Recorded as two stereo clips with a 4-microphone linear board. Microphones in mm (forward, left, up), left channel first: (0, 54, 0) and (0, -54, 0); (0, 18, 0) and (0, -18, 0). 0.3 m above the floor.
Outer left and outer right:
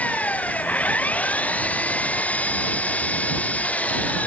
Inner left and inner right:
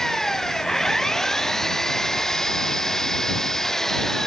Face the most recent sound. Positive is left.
turn(degrees=15)  # may be behind; listen again after turning